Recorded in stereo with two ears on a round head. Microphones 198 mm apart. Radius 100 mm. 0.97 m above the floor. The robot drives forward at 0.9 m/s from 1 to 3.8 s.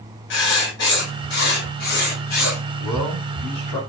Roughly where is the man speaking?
Centre.